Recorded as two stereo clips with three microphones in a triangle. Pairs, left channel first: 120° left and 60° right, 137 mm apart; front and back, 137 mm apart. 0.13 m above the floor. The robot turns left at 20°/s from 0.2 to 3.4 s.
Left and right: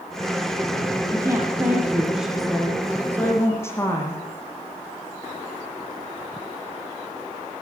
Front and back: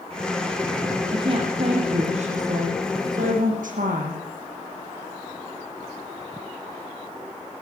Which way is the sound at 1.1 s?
125° right.